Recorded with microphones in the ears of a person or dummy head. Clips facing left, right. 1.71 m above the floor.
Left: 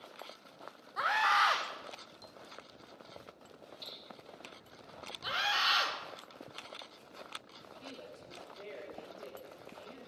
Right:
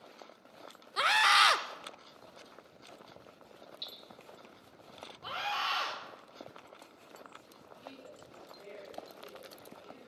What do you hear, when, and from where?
1.0 s a scream: 50° right (ahead or behind), 0.5 m
3.8 s hammering: 30° right (ahead or behind), 3.5 m
5.2 s a scream: 30° left (ahead or behind), 2.5 m
7.8 s a woman speaking: 65° left (ahead or behind), 7 m